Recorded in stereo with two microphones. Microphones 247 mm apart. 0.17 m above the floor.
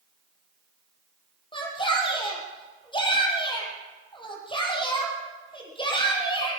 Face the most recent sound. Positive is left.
turn(degrees=20)  # may be behind; listen again after turning